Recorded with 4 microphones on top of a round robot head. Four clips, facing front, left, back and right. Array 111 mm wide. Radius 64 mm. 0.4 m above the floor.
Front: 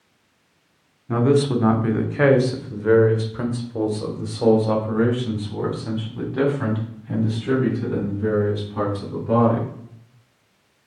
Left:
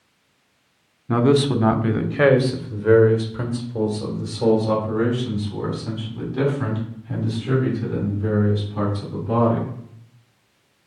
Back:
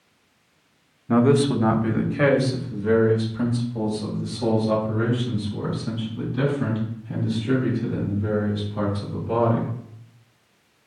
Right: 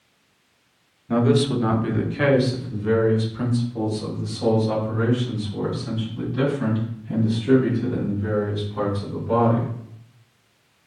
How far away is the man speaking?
About 1.2 m.